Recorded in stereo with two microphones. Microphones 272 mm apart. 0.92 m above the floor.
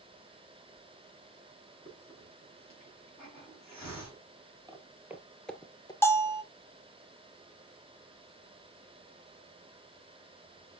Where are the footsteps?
15° right (ahead or behind), 1.3 m; by 5.9 s 15° left (ahead or behind), 0.9 m.